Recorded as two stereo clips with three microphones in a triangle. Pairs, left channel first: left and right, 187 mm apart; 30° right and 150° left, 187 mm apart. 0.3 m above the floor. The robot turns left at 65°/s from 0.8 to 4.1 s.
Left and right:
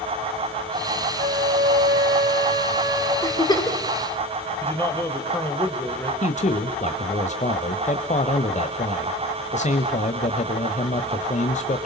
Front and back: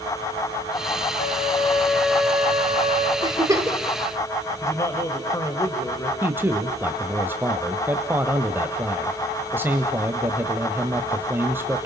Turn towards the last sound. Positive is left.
turn(degrees=80)